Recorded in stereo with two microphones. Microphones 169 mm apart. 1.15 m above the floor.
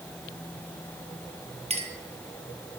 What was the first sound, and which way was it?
A clink, 40° right (ahead or behind).